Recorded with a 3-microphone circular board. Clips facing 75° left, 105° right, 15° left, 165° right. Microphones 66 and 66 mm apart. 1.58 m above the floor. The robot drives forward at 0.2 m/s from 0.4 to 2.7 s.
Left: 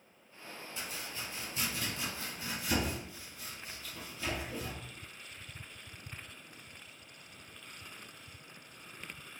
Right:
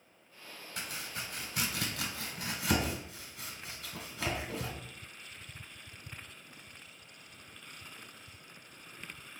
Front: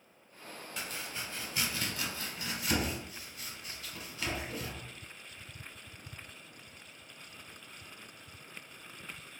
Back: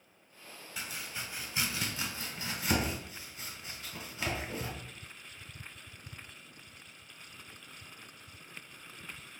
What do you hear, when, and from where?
0.8 s chopping: 80° right, 0.8 m; by 4.7 s 110° right, 0.9 m